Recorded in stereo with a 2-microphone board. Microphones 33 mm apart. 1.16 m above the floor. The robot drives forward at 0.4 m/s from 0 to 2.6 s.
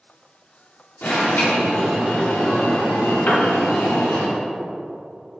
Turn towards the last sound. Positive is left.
turn(degrees=60)  # may be behind; listen again after turning